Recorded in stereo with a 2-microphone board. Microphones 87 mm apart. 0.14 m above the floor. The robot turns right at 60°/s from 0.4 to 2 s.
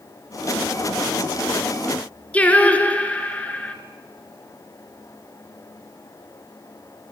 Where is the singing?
15° left (ahead or behind), 2.0 m.